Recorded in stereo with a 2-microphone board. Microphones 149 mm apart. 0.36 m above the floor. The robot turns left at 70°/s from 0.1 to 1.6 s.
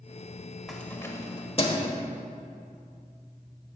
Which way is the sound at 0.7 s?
Centre (ahead or behind).